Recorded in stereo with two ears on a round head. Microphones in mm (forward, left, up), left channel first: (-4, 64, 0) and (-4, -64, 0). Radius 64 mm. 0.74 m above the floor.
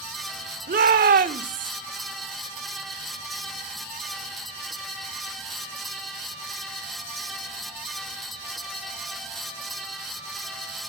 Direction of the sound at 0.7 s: 65° right (ahead or behind).